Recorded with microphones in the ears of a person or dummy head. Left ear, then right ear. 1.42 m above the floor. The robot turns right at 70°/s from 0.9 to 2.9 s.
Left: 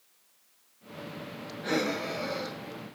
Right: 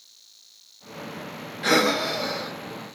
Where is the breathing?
75° right, 0.5 m; by 2.6 s 10° right, 0.5 m.